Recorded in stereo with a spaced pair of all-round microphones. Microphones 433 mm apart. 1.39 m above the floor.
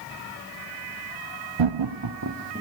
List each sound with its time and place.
1.6 s laughter: 80° right, 0.7 m; by 2.6 s 25° right (ahead or behind), 1.6 m